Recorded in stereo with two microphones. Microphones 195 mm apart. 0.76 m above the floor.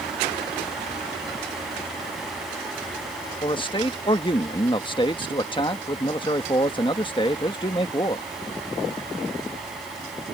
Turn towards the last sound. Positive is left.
turn(degrees=25)  # may be behind; listen again after turning